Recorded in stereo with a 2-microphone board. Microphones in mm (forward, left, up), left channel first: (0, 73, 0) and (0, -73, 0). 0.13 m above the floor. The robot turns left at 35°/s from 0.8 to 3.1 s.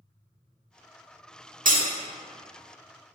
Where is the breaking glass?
75° right (ahead or behind), 0.9 m; by 1.9 s 65° right (ahead or behind), 0.9 m.